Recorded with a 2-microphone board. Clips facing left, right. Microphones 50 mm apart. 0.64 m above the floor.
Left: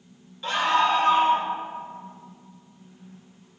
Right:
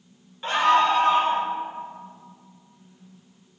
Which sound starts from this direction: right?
A scream, at 0.4 s.